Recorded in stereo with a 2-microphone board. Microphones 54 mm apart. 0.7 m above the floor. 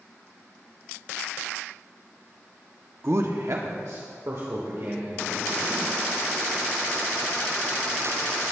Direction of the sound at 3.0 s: 50° right (ahead or behind).